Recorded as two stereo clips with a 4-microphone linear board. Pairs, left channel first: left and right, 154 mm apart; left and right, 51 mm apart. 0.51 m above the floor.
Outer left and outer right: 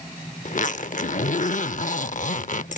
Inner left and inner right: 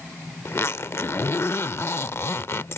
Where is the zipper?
55° left (ahead or behind).